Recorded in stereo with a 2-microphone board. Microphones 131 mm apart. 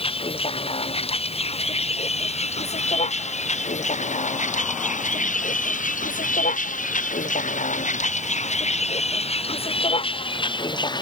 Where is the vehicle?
45° left (ahead or behind); by 11.0 s 35° left (ahead or behind).